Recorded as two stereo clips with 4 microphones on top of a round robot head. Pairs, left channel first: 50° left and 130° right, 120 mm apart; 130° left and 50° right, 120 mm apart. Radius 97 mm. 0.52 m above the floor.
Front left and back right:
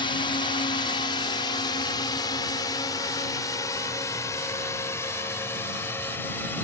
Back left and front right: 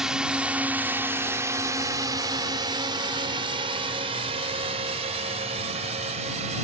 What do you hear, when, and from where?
0.0 s a drone: 35° left; by 6.7 s 25° right